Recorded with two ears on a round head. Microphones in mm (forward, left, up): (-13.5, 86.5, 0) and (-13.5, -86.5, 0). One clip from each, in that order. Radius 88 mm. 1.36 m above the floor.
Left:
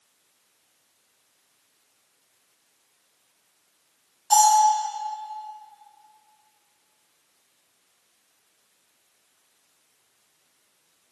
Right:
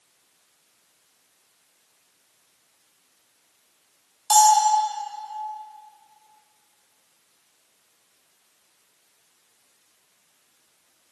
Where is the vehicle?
I don't hear a vehicle.